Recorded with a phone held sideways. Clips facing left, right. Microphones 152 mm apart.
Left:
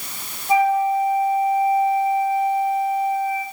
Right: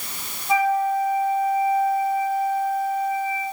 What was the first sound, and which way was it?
A flute, 30° left (ahead or behind).